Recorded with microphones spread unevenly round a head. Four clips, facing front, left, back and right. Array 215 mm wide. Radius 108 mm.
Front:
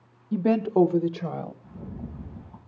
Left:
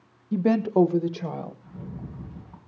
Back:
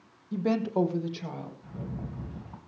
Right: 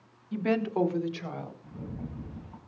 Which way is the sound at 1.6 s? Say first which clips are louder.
Even, even; 170° left.